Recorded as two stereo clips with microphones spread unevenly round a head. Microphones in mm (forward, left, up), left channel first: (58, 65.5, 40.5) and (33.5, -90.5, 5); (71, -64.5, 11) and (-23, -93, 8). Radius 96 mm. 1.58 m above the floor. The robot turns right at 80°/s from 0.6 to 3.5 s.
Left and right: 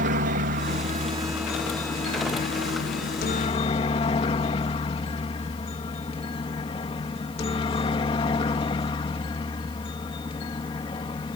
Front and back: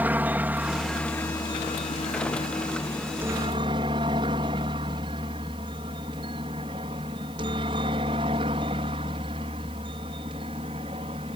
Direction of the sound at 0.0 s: 95° right.